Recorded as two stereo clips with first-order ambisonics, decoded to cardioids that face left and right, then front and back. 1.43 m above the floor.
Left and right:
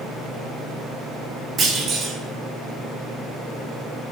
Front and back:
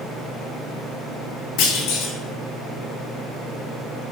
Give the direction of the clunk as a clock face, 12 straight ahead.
1 o'clock.